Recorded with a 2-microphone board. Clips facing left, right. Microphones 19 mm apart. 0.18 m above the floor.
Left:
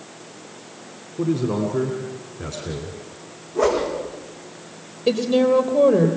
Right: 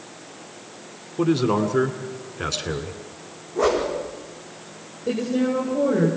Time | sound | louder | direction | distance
1.2 | a man speaking | right 2 dB | 50° right (ahead or behind) | 2 m
3.5 | a whoosh | left 1 dB | 10° left (ahead or behind) | 6.5 m
5.1 | a woman speaking | left 5 dB | 65° left (ahead or behind) | 4.5 m